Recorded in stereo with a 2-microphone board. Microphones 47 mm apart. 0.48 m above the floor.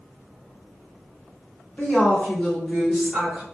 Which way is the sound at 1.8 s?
30° left (ahead or behind).